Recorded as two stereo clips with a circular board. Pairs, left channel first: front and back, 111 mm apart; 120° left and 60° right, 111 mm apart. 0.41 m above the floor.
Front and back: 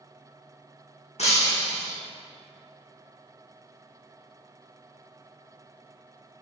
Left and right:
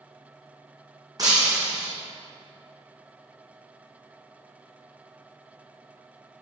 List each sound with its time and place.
1.2 s breaking glass: 5° right, 2.5 m